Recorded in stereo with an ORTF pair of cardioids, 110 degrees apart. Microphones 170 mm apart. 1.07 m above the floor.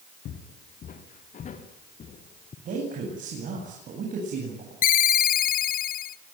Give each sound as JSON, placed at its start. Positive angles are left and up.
{"t": 0.2, "sound": "footsteps", "azimuth_deg": 60, "distance_m": 3.5}
{"t": 2.6, "sound": "a man speaking", "azimuth_deg": -50, "distance_m": 9.0}
{"t": 4.8, "sound": "a ringtone", "azimuth_deg": 60, "distance_m": 1.0}